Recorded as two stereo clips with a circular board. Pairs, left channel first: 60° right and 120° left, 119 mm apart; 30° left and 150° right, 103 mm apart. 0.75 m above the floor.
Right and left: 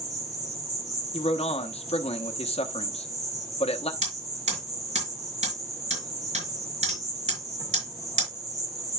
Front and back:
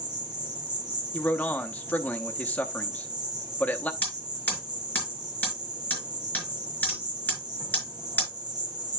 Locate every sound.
0.0 s an insect: 175° left, 2.0 m
1.1 s a man speaking: 45° right, 1.0 m
4.0 s hammering: 105° left, 5 m